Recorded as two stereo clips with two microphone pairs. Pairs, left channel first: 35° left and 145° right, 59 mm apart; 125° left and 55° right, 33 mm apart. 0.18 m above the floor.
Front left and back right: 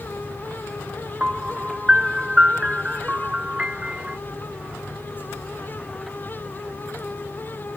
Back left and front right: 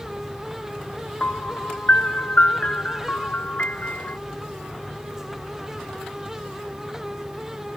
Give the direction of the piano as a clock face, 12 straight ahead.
7 o'clock.